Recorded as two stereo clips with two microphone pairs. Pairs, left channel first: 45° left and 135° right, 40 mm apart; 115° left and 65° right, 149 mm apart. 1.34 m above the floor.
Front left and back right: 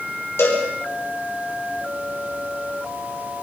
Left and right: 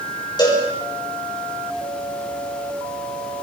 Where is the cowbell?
55° left, 6 m.